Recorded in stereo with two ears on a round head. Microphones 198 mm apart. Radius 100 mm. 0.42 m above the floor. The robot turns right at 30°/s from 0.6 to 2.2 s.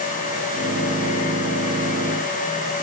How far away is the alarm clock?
No alarm clock in this recording.